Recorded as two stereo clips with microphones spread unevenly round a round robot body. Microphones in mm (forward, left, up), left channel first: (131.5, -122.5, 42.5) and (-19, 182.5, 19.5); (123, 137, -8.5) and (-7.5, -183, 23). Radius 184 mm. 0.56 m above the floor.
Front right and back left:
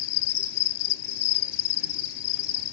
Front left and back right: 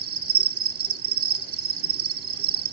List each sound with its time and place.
0.0 s an insect: 65° right, 1.2 m